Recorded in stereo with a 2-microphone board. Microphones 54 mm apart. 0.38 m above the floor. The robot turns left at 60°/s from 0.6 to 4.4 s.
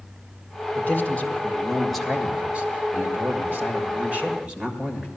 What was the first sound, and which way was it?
A man speaking, 70° left.